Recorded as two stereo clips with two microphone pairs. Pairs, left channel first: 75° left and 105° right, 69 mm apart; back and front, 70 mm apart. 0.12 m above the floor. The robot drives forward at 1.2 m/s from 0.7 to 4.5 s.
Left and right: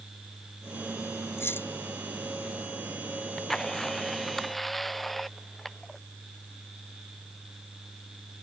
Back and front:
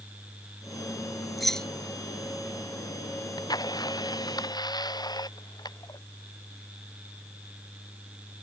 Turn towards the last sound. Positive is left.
turn(degrees=165)